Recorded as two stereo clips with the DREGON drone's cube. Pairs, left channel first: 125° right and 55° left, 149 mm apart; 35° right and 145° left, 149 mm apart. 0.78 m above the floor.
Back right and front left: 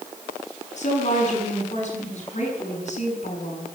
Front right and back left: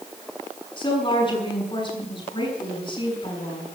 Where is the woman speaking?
90° right, 7.5 m.